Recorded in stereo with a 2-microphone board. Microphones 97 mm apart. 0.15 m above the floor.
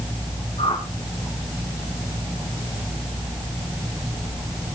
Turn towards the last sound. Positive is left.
turn(degrees=85)